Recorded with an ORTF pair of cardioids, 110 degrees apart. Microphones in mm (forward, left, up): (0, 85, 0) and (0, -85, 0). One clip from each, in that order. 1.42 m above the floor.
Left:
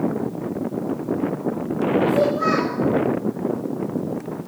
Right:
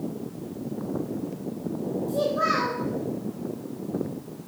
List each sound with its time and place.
2.1 s a child speaking: 10° right, 2.5 m